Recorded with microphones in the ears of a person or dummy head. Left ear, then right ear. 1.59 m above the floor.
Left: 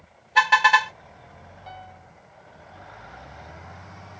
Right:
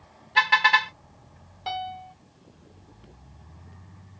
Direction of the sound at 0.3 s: 25° left (ahead or behind).